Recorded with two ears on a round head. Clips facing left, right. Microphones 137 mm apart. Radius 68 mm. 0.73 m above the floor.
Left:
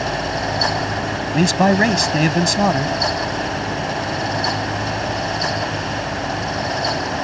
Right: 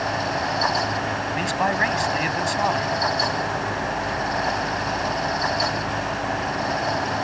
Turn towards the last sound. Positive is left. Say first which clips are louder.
# left 10 dB
turn(degrees=55)  # may be behind; listen again after turning